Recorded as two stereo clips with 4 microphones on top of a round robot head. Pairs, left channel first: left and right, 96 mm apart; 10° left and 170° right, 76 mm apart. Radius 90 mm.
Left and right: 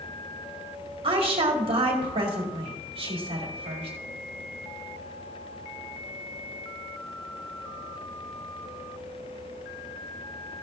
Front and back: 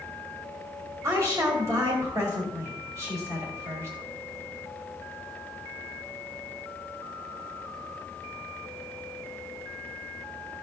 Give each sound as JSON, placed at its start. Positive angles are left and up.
{"t": 1.0, "sound": "a woman speaking", "azimuth_deg": -115, "distance_m": 2.0}